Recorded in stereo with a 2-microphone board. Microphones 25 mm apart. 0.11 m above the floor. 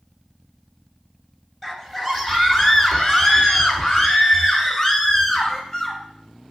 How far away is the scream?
About 2 m.